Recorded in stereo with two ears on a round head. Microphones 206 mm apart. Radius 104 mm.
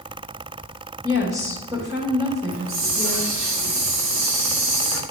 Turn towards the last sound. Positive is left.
turn(degrees=-60)  # may be behind; listen again after turning